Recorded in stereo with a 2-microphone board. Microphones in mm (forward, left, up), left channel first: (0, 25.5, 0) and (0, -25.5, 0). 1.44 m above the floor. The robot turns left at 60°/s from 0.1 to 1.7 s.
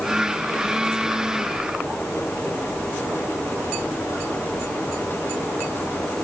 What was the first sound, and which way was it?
Only background noise.